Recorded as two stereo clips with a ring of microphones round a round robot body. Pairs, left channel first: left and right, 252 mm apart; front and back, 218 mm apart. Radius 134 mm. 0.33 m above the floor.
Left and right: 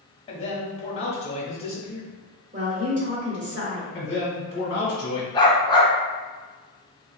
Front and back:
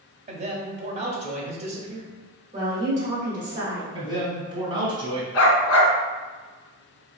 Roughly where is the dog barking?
Ahead.